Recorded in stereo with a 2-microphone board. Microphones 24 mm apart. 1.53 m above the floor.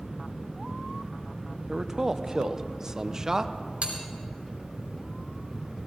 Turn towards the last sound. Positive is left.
turn(degrees=-65)  # may be behind; listen again after turning